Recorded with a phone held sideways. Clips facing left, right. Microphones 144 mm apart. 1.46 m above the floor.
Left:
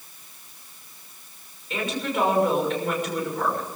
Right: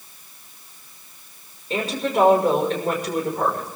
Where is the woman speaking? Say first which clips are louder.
Right 4 dB; 35° right (ahead or behind), 6 m.